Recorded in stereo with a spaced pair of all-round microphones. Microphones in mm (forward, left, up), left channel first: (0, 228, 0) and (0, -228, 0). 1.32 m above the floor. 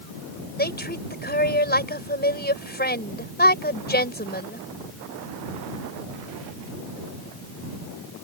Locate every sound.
0.6 s a woman speaking: 20° left (ahead or behind)